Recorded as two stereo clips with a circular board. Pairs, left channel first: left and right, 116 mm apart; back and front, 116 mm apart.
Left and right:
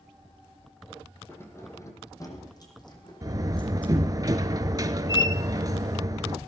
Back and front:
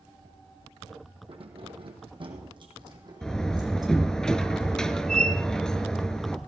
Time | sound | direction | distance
1.3 | keys jangling | 25° left | 3 m
3.2 | a door slam | 100° right | 0.9 m